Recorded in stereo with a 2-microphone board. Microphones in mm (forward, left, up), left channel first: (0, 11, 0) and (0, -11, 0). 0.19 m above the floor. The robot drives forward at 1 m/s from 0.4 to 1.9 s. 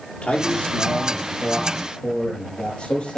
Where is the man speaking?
65° left (ahead or behind), 5 m; by 3.2 s 55° left (ahead or behind), 5.5 m.